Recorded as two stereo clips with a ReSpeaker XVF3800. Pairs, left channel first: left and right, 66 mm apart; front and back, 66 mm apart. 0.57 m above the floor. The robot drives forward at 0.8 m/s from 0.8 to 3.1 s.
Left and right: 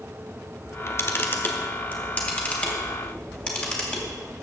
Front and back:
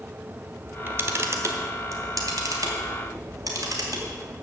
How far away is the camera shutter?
About 0.9 m.